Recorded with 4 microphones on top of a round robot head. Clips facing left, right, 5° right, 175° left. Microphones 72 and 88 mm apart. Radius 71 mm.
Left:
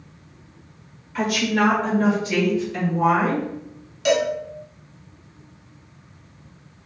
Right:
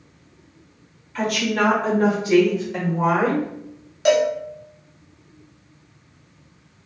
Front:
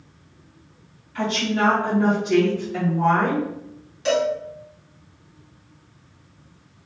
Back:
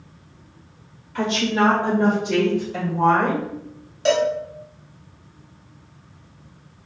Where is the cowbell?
135° right, 1.2 m.